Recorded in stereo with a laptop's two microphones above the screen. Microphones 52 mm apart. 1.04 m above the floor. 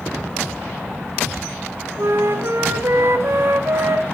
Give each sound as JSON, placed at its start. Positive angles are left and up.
{"t": 2.0, "sound": "a flute", "side_deg": -55, "distance_m": 0.5}